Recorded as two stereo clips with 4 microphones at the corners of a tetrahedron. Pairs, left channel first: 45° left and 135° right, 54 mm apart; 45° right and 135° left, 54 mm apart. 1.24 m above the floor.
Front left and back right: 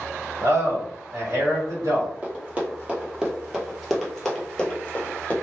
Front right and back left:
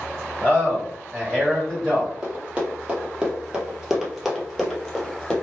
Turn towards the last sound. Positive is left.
turn(degrees=15)